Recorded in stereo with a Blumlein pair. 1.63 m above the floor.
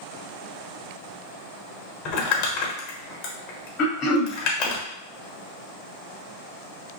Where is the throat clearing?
30° left, 1.0 m.